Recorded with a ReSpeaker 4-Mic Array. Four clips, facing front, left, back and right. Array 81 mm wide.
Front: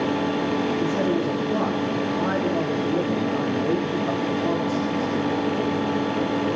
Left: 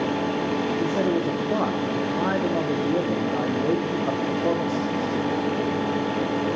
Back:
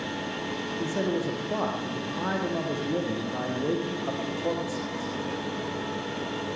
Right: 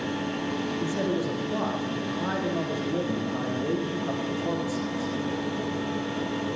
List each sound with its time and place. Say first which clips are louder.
0.8 s a man speaking: left 4 dB, front 6 dB; 95° left, 5.5 m